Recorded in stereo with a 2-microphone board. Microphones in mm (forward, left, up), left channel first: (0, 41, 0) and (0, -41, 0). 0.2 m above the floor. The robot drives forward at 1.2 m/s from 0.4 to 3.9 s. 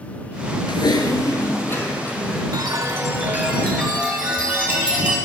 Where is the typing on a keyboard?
80° left, 0.7 m; by 2.4 s 20° left (ahead or behind), 2 m.